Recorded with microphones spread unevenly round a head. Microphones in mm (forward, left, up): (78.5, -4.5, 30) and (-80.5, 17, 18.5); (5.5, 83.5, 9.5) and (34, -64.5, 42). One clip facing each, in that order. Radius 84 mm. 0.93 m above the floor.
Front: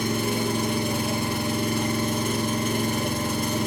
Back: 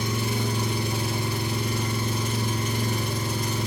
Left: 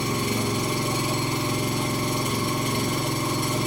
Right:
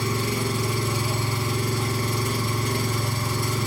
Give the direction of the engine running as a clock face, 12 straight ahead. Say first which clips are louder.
Front 3 dB, left 1 dB; 11 o'clock.